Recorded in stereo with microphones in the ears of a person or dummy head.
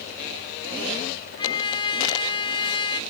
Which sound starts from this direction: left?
A trumpet, at 1.4 s.